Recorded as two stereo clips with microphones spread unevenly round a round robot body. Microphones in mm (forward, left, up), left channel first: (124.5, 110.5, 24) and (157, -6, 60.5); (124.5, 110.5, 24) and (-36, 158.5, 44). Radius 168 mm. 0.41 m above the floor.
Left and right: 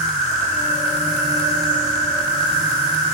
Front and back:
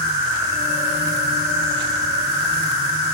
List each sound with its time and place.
0.0 s an insect: 145° left, 5.5 m